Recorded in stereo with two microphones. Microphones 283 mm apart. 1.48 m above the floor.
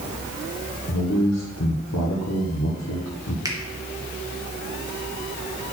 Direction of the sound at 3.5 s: 10° right (ahead or behind).